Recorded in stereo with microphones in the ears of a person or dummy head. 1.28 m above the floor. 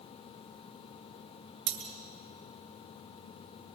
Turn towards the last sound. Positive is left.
turn(degrees=-50)  # may be behind; listen again after turning